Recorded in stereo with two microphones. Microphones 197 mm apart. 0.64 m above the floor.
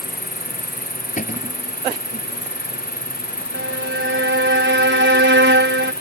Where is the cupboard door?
40° left (ahead or behind).